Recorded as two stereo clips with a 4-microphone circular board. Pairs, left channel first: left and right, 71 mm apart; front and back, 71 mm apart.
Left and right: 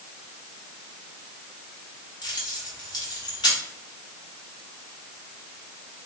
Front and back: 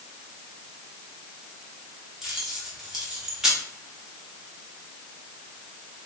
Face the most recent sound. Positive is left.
turn(degrees=95)